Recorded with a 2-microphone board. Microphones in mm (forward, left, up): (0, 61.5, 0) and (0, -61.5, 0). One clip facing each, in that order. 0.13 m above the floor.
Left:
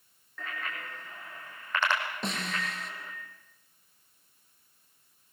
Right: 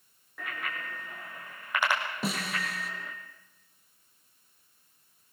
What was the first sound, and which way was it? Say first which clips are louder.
A bicycle bell: right 1 dB; 10° right (ahead or behind).